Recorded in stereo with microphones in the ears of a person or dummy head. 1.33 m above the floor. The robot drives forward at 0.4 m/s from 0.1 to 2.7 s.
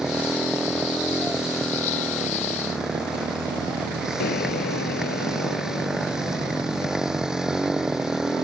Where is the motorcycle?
Centre (ahead or behind).